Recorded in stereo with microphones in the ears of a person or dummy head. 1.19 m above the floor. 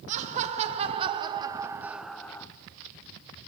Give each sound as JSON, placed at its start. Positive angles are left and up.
{"t": 0.1, "sound": "laughter", "side_deg": -40, "distance_m": 2.5}